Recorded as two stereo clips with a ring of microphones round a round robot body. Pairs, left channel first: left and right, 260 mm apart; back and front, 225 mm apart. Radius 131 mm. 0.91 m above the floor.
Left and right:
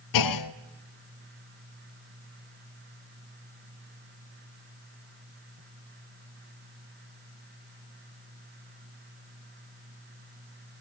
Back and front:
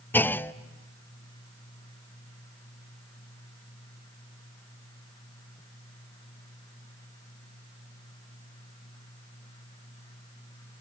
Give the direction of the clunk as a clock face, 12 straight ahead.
9 o'clock.